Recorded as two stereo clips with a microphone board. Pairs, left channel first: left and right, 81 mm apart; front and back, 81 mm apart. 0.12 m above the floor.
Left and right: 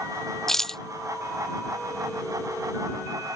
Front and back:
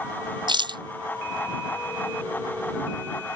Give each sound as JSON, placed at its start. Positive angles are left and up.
{"t": 0.5, "sound": "a rattle", "azimuth_deg": 175}